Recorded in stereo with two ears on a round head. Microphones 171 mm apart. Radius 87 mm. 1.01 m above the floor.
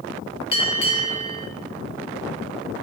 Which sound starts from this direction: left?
A bell, at 0.5 s.